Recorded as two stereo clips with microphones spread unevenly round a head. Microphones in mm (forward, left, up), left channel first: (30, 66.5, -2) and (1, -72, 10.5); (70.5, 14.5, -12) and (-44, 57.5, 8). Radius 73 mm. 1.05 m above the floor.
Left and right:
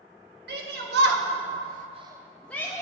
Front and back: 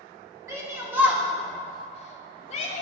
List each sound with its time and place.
0.5 s a shout: 130° right, 2.5 m; by 2.8 s 10° left, 1.5 m